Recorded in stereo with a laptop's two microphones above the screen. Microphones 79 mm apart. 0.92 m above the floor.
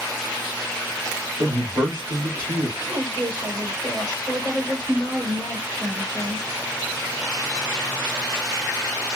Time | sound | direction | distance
1.4 | a man speaking | 55° right (ahead or behind) | 2.5 m
2.8 | a woman speaking | 65° right (ahead or behind) | 3.5 m